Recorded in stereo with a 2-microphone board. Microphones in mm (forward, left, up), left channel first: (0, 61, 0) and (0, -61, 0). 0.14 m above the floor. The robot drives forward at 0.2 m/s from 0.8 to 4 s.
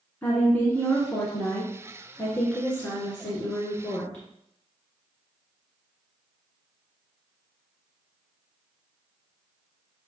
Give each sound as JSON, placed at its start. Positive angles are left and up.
{"t": 0.2, "sound": "a woman speaking", "side_deg": 15, "distance_m": 1.3}